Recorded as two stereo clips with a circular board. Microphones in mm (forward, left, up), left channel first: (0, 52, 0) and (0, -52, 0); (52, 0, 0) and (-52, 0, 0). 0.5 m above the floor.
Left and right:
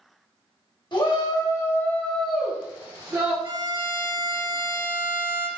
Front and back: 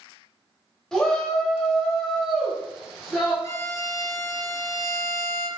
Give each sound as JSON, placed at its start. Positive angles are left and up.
{"t": 0.9, "sound": "a shout", "azimuth_deg": 85, "distance_m": 1.1}
{"t": 3.4, "sound": "a violin", "azimuth_deg": -55, "distance_m": 0.9}